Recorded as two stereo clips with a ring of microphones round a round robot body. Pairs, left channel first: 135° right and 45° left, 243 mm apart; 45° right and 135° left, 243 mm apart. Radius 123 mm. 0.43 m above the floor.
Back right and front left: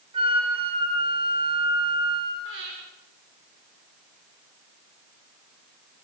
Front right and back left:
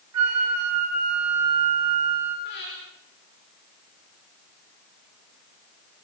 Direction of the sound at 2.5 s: Straight ahead.